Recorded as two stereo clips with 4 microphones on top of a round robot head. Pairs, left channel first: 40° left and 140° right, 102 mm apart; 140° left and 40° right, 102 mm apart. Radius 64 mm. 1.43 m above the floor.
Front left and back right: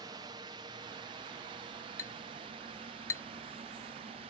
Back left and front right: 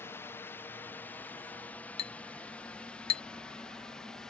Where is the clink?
105° left.